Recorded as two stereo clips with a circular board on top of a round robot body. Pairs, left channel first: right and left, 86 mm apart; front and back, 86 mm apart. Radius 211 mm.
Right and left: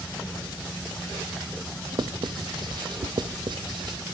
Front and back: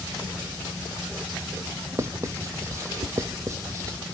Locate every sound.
1.9 s writing: 125° left, 0.8 m